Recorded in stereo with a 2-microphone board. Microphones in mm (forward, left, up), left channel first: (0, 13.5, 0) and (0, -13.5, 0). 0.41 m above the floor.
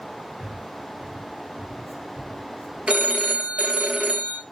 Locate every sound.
0.4 s breathing: 40° right (ahead or behind), 3 m
2.9 s a phone ringing: 55° right (ahead or behind), 1.4 m